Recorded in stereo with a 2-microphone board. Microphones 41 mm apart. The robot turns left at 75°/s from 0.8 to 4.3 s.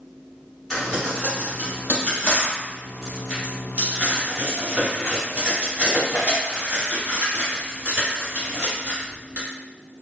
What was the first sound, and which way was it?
Crumpling, 10° left (ahead or behind).